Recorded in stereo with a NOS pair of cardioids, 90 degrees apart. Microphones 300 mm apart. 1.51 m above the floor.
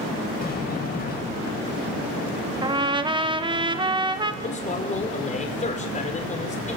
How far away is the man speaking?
About 5.5 m.